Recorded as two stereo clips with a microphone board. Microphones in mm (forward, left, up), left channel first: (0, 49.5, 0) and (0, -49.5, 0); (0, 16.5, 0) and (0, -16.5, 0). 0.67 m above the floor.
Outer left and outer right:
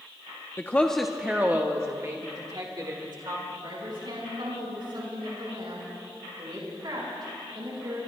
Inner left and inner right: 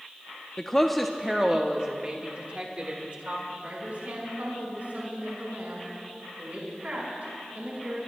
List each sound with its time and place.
0.6 s a woman speaking: 25° left (ahead or behind), 0.6 m; by 3.4 s 50° right (ahead or behind), 1.8 m
3.5 s a woman speaking: 55° right (ahead or behind), 5 m